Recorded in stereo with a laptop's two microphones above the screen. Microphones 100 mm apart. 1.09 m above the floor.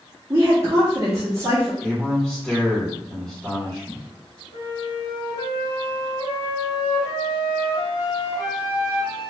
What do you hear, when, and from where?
0.3 s a woman speaking: 30° right (ahead or behind), 0.8 m
1.8 s a man speaking: 5° left (ahead or behind), 1.8 m
4.5 s a flute: 40° left (ahead or behind), 1.2 m